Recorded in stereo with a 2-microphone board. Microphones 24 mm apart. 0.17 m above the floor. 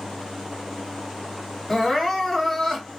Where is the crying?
15° left (ahead or behind), 1.6 m.